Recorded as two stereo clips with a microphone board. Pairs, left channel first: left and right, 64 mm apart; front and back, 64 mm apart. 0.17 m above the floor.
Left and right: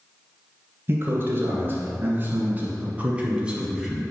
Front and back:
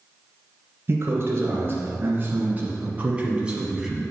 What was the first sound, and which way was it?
A man speaking, 135° right.